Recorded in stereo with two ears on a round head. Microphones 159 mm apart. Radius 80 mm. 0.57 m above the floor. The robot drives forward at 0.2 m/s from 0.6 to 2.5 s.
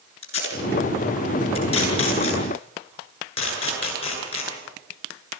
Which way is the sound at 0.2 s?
35° left (ahead or behind).